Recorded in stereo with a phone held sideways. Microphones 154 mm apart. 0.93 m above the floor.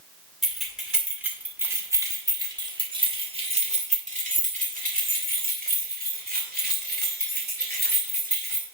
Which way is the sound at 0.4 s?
Centre (ahead or behind).